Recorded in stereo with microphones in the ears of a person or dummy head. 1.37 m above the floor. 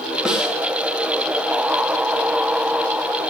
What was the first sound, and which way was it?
A snare drum, 10° right (ahead or behind).